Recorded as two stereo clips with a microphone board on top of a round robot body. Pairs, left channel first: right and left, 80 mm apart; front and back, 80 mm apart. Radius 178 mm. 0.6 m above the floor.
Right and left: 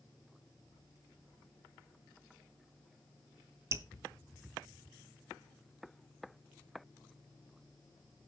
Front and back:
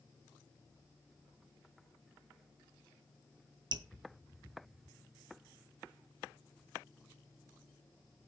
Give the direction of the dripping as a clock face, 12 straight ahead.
7 o'clock.